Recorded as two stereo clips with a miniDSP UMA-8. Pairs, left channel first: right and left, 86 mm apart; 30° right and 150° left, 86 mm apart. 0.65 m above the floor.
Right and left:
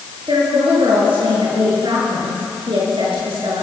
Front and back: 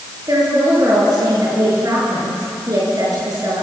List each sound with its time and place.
0.3 s a woman speaking: 105° left, 8.5 m